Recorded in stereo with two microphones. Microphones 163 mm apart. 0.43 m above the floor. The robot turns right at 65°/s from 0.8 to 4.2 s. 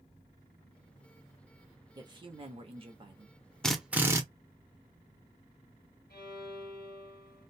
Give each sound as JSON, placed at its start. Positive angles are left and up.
{"t": 1.9, "sound": "a man speaking", "azimuth_deg": -135, "distance_m": 0.9}
{"t": 3.6, "sound": "a drill", "azimuth_deg": 175, "distance_m": 0.6}
{"t": 6.1, "sound": "a violin", "side_deg": 85, "distance_m": 1.5}